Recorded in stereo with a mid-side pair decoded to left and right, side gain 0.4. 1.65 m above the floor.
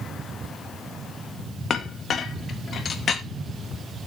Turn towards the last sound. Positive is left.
turn(degrees=55)